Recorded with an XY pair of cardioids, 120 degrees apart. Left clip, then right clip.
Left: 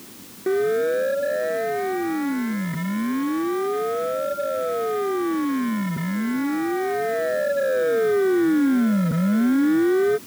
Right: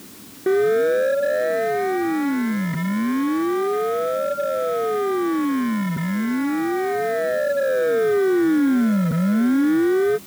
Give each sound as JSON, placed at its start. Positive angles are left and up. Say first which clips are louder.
{"t": 0.5, "sound": "a siren", "louder": "right 3 dB", "azimuth_deg": -20}